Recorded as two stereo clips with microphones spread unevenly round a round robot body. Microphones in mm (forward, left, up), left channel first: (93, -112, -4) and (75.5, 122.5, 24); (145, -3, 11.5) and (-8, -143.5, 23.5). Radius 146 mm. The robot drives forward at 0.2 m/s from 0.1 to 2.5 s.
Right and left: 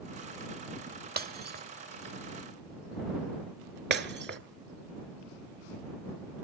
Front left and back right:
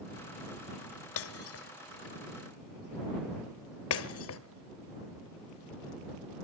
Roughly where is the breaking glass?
Ahead left.